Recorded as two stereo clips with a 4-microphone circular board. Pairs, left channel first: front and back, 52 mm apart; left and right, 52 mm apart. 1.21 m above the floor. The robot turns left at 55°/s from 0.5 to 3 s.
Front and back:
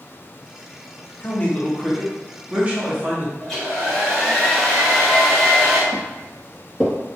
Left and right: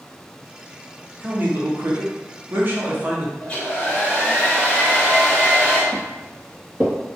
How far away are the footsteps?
About 1.8 m.